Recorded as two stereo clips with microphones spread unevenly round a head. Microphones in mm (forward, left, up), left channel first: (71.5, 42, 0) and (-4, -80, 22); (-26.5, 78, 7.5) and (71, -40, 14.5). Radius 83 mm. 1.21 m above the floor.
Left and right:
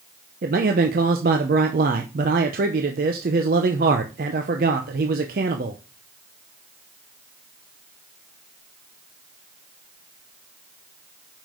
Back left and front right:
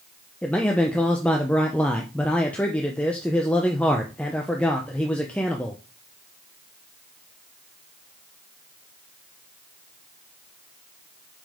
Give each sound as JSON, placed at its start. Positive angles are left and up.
{"t": 0.4, "sound": "a man speaking", "azimuth_deg": -150, "distance_m": 0.6}